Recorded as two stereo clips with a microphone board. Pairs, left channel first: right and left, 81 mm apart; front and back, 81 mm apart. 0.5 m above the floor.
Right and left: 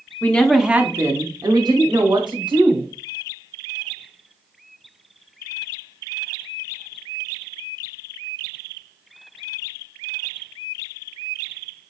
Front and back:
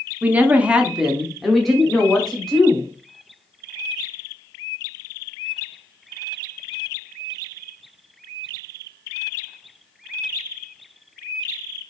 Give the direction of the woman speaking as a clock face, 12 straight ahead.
4 o'clock.